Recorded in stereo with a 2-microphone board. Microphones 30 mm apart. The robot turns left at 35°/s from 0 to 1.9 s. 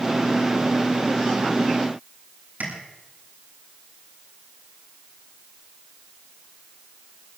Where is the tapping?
75° right (ahead or behind), 9 m.